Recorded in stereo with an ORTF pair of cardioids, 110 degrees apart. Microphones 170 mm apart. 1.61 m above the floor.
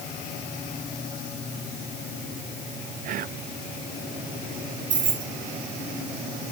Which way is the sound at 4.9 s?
50° right.